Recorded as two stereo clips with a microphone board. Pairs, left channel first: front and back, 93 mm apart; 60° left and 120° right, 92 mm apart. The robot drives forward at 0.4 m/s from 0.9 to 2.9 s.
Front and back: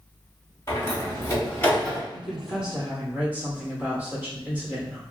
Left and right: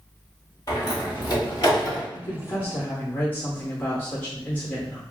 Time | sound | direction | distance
0.7 | a door slam | 40° left | 1.2 m
2.1 | a woman speaking | 80° left | 0.8 m